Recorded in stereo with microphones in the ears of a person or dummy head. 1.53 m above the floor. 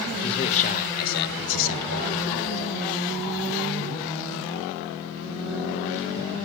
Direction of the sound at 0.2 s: 30° left (ahead or behind).